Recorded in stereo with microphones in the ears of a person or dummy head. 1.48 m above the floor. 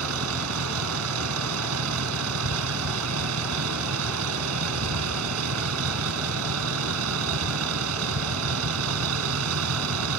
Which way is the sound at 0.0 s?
85° right.